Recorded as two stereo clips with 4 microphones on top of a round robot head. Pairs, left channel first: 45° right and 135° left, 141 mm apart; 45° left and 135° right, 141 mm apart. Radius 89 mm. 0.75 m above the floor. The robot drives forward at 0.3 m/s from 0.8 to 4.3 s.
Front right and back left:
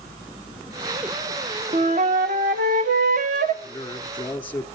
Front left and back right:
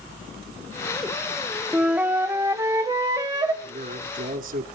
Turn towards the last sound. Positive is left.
turn(degrees=-120)